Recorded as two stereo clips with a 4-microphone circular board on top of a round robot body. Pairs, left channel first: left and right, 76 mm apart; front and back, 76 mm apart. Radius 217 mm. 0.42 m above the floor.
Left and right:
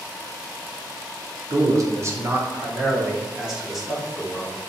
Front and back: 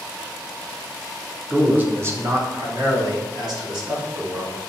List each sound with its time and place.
1.5 s a man speaking: 110° right, 1.8 m; by 4.7 s 175° left, 3.5 m